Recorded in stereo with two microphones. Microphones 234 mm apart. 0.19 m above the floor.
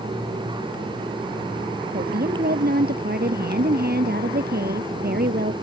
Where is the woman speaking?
45° right (ahead or behind).